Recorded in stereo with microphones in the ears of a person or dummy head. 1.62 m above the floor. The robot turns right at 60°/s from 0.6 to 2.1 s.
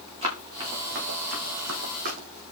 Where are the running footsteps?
30° right (ahead or behind), 7 m; by 2.4 s 50° right (ahead or behind), 4.5 m.